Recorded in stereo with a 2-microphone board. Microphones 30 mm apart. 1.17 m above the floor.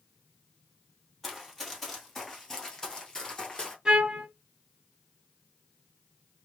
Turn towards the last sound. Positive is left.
turn(degrees=-30)  # may be behind; listen again after turning